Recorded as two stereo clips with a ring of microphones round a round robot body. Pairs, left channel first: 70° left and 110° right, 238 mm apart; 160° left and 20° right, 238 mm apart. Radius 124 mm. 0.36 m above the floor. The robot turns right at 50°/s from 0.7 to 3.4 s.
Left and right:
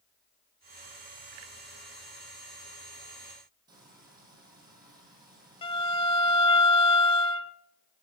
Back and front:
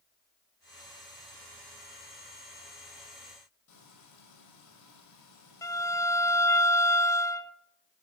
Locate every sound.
3.7 s frying: 175° left, 6 m
5.6 s a violin: 100° left, 0.7 m